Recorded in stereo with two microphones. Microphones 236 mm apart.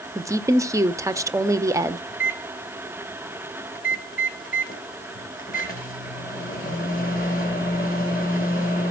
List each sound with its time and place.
0.1 s a woman speaking: 15° right (ahead or behind), 0.7 m
2.1 s a microwave: 40° left (ahead or behind), 2.5 m